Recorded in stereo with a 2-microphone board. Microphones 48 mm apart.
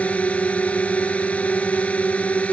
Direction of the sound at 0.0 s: 25° left (ahead or behind).